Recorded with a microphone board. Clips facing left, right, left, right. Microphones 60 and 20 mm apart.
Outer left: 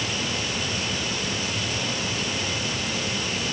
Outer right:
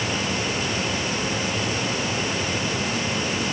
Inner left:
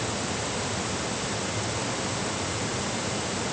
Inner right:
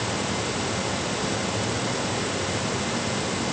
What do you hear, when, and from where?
Only background noise.